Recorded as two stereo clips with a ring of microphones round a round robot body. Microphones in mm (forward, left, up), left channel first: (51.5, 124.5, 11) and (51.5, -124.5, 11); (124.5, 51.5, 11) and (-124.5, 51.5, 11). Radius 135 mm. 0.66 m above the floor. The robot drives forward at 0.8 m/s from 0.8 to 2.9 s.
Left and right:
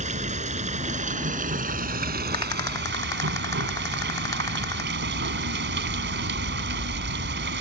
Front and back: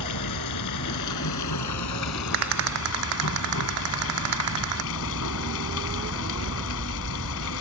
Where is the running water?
30° right; by 7.6 s 45° right.